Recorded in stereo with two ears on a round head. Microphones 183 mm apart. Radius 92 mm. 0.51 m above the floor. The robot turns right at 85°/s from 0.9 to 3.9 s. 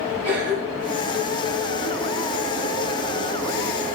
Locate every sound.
0.2 s a cough: 55° right (ahead or behind), 6.5 m; by 1.0 s 45° right (ahead or behind), 6.5 m